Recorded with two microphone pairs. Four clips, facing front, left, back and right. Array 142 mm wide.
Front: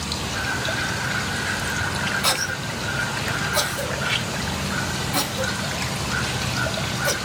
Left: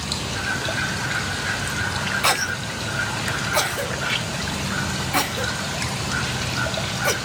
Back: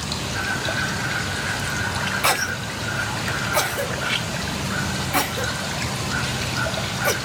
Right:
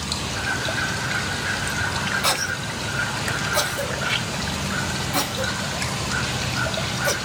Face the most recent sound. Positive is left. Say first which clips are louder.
# left 2 dB, back 3 dB
turn(degrees=125)